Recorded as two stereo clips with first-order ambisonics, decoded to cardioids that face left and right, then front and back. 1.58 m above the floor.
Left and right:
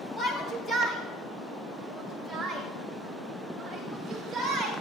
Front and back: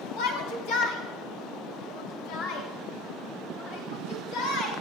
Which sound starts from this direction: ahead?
A shout, at 0.2 s.